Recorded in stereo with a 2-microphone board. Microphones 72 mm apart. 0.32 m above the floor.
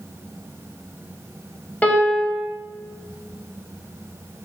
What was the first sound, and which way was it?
A piano, 25° left (ahead or behind).